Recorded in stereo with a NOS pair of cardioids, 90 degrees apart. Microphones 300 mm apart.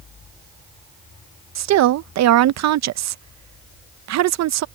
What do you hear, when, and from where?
1.6 s a woman speaking: 65° right